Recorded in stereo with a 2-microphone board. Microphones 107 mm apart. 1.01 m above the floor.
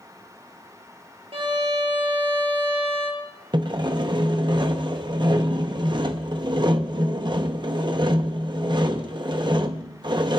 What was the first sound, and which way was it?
A violin, 75° right (ahead or behind).